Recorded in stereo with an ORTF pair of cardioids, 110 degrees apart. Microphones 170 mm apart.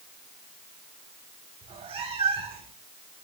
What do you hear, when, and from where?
1.6 s a cat meowing: 35° right, 1.9 m